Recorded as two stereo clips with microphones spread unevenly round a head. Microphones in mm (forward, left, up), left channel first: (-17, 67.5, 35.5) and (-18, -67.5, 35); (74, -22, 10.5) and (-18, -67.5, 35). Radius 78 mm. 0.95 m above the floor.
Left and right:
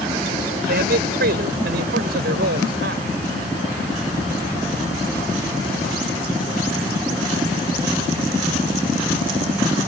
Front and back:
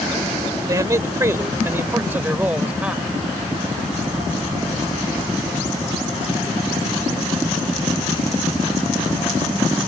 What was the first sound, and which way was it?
A man speaking, 100° right.